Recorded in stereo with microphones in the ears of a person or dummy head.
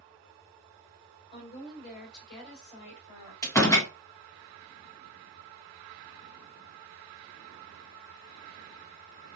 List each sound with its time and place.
1.3 s a woman speaking: 55° left (ahead or behind), 3 m; by 3.3 s 45° left (ahead or behind), 3.5 m
3.4 s a door slam: 15° left (ahead or behind), 1.1 m